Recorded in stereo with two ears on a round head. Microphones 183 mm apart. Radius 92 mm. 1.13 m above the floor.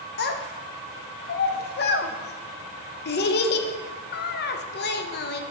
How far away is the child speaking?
About 0.6 m.